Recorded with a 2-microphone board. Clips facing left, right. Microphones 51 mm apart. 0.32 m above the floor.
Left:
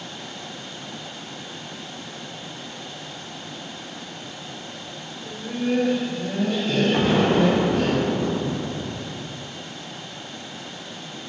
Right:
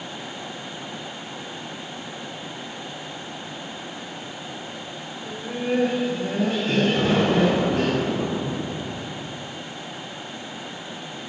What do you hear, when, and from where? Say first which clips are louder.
5.2 s laughter: left 1 dB; 5° left (ahead or behind), 0.9 m; by 7.9 s 65° right (ahead or behind), 3 m
6.9 s an explosion: left 3 dB; 50° left (ahead or behind), 1.5 m